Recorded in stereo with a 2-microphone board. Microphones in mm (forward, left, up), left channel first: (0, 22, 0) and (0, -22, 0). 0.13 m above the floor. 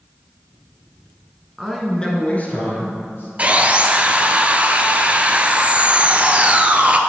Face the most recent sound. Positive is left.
turn(degrees=-30)  # may be behind; listen again after turning